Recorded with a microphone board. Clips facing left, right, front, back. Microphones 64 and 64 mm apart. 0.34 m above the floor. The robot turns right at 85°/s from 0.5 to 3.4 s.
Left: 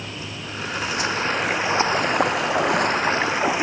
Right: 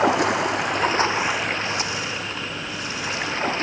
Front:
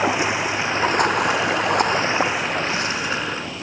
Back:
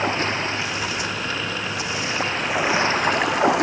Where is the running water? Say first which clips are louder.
Right 15 dB, front 3 dB; 80° right; by 3.6 s 165° left.